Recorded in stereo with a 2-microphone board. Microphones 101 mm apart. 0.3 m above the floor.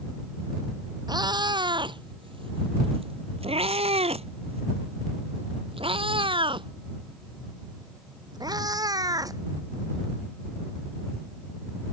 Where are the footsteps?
No footsteps in this recording.